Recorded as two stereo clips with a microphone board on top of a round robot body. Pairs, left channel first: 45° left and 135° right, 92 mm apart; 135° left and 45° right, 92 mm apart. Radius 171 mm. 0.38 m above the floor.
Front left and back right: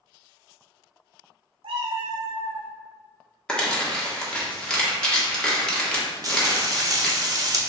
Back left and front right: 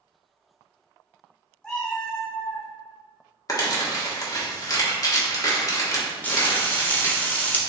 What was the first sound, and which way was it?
A cat meowing, 145° right.